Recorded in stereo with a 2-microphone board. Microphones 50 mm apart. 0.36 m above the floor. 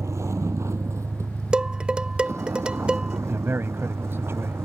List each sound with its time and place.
0.0 s a vehicle: 75° right (ahead or behind); by 4.7 s 60° right (ahead or behind)
1.5 s dishes clattering: 20° right (ahead or behind)
3.3 s a man speaking: 55° right (ahead or behind)